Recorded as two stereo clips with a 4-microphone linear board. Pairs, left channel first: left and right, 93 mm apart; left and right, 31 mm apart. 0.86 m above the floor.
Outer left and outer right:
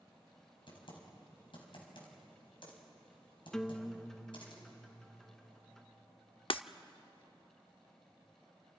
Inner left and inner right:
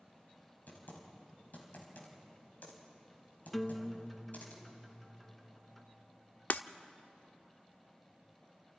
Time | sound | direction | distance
0.7 | typing on a keyboard | 65° left (ahead or behind) | 4.5 m
3.5 | a guitar | 5° left (ahead or behind) | 0.9 m
6.5 | breaking glass | 70° left (ahead or behind) | 0.7 m